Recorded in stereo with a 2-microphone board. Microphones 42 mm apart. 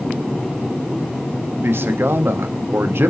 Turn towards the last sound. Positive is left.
turn(degrees=-75)  # may be behind; listen again after turning